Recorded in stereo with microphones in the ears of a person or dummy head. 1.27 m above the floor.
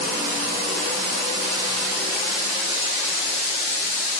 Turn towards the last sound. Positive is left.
No sound to turn to.